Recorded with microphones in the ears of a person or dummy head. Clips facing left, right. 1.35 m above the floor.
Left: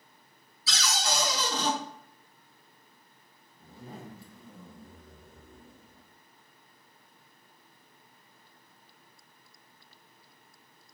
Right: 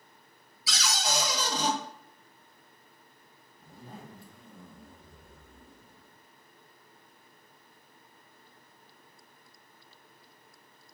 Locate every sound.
0.7 s a cupboard door: 20° right (ahead or behind), 1.5 m
3.6 s a zipper: centre (ahead or behind), 0.9 m